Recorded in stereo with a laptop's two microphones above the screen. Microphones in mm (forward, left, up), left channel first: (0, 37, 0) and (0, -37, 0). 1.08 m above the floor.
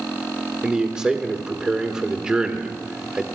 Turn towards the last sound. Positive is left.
turn(degrees=-10)  # may be behind; listen again after turning